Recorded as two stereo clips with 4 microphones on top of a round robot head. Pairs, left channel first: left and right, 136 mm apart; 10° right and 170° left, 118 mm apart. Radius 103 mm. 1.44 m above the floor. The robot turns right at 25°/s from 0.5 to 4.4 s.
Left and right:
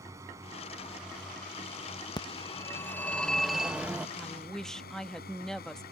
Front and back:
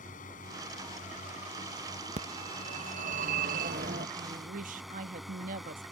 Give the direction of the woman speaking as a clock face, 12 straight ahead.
6 o'clock.